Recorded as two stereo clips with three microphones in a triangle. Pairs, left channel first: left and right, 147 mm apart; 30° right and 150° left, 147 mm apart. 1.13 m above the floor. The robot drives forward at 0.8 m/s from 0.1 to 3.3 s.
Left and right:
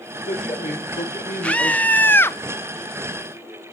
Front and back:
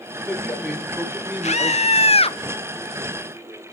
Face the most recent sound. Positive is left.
turn(degrees=100)